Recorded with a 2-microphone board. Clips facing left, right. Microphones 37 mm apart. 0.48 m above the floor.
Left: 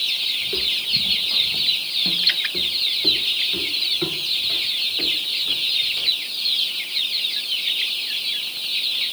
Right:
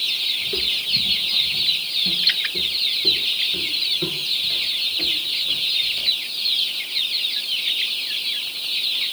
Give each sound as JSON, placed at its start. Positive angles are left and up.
{"t": 0.4, "sound": "footsteps", "side_deg": 10, "distance_m": 1.0}